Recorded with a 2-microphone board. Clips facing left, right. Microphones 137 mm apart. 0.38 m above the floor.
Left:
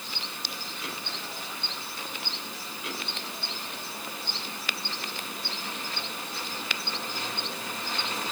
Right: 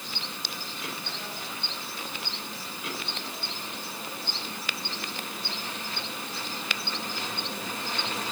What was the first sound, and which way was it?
Only background noise.